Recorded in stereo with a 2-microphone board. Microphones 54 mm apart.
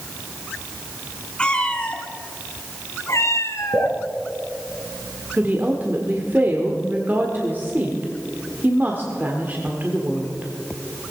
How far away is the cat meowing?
About 1.9 m.